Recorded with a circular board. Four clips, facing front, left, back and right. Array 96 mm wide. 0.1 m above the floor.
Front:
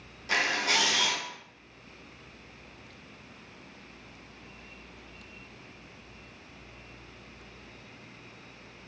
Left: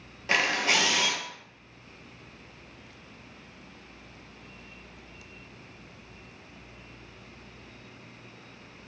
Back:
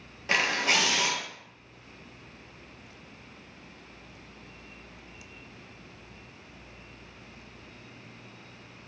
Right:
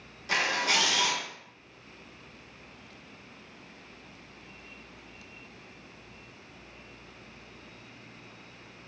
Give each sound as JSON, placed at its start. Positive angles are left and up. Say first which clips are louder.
{"t": 0.3, "sound": "a camera shutter", "louder": "left 2 dB, back 1 dB", "azimuth_deg": 130, "distance_m": 0.7}